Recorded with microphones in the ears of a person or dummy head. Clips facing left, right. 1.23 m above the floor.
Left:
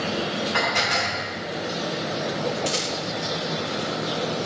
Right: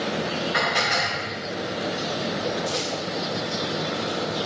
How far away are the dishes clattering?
About 4 m.